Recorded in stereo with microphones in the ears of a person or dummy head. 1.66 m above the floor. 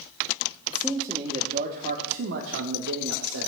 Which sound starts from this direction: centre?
A man speaking, at 0.7 s.